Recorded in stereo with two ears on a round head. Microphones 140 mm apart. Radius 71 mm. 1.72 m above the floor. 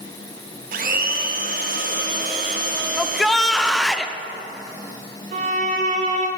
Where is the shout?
Centre (ahead or behind), 0.6 m.